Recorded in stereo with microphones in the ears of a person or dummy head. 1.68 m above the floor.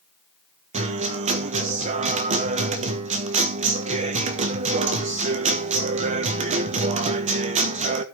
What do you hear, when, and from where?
0.7 s a guitar: 35° right (ahead or behind), 1.3 m